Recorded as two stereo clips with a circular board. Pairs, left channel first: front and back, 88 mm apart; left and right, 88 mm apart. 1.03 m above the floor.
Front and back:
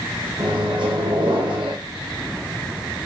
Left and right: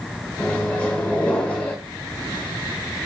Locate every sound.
0.4 s a microwave: 165° left, 1.0 m